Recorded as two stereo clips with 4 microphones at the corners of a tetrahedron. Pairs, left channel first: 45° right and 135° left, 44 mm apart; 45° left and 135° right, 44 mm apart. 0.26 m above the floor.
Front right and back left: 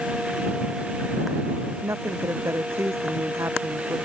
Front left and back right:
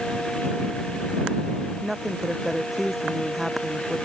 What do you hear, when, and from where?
1.8 s a woman speaking: 145° left; by 4.0 s 140° left